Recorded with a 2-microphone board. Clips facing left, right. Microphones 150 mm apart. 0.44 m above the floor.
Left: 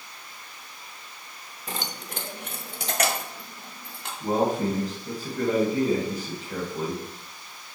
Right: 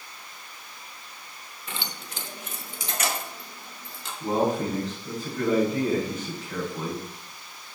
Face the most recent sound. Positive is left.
turn(degrees=10)  # may be behind; listen again after turning